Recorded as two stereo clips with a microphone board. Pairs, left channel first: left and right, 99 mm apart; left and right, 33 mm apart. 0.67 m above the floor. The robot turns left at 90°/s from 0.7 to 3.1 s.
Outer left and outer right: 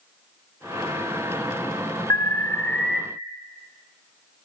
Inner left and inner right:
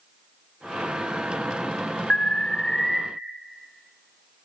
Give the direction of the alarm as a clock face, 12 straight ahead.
9 o'clock.